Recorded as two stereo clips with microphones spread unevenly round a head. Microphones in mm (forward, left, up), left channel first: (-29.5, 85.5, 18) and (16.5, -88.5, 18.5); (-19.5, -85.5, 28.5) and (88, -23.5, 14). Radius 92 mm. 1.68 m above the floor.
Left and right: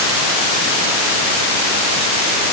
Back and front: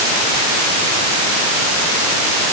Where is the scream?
No scream in this recording.